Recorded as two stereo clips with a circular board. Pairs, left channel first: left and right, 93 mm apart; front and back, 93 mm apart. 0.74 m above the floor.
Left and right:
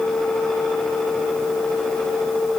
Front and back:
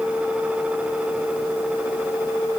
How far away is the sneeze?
No sneeze in this recording.